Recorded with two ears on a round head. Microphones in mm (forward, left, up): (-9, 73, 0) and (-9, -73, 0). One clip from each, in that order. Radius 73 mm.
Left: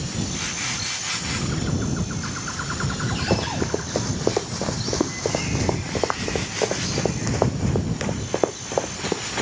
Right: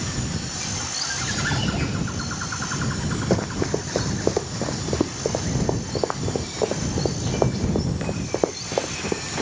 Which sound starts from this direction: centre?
Running footsteps, at 3.3 s.